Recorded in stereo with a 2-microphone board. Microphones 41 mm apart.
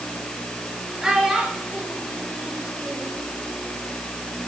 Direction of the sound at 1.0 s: 15° right (ahead or behind).